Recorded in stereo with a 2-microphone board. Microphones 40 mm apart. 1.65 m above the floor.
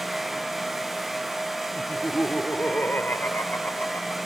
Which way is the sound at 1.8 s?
60° left (ahead or behind).